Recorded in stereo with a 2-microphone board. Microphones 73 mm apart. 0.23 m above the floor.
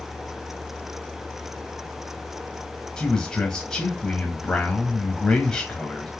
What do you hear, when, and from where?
3.0 s a man speaking: 10° left (ahead or behind), 1.0 m